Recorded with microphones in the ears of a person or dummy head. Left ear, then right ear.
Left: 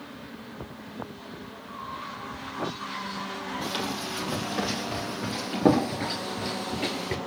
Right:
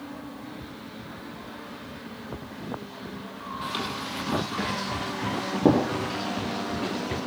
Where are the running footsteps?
10° left (ahead or behind), 3 m; by 7.2 s 20° left (ahead or behind), 1.8 m.